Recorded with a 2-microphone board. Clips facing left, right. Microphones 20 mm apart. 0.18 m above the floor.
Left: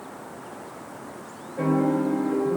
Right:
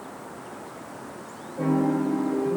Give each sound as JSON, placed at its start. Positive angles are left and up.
{"t": 1.6, "sound": "a piano", "side_deg": 55, "distance_m": 2.5}